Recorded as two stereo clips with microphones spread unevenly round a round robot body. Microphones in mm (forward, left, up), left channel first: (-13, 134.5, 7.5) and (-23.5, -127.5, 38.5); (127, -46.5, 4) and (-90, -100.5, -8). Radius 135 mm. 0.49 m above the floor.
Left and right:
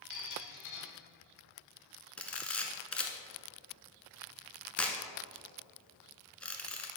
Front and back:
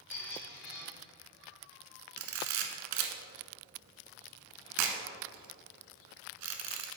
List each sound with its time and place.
0.1 s a squeak: 65° left, 1.8 m
2.2 s a camera shutter: 175° left, 0.8 m